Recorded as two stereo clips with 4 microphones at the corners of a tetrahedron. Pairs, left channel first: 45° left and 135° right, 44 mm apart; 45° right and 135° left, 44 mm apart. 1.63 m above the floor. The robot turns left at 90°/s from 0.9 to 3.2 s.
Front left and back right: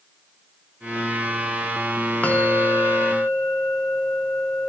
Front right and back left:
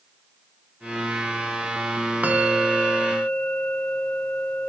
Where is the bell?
90° left, 0.7 m; by 4.7 s 5° left, 0.7 m.